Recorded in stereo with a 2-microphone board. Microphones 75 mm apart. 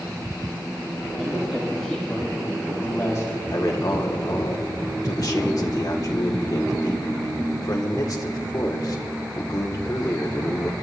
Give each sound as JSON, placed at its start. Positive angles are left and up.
{"t": 1.2, "sound": "a woman speaking", "side_deg": -10, "distance_m": 2.5}
{"t": 3.5, "sound": "a man speaking", "side_deg": 50, "distance_m": 1.6}